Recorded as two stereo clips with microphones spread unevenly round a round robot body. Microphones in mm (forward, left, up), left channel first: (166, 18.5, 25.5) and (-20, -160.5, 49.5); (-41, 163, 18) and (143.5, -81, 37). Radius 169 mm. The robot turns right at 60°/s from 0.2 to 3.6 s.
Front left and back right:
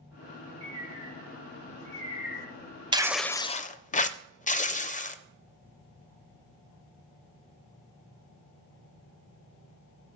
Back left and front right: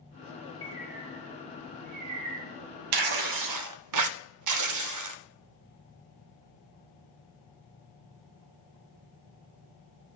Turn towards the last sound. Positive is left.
turn(degrees=-20)